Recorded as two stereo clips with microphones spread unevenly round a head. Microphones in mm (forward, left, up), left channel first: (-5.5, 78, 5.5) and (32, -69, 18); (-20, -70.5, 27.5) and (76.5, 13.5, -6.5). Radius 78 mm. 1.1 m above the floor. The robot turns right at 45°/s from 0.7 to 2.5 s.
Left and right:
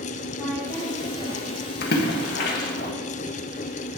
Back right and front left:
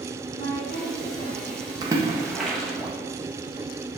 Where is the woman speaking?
165° right, 3 m; by 1.7 s 120° right, 3 m.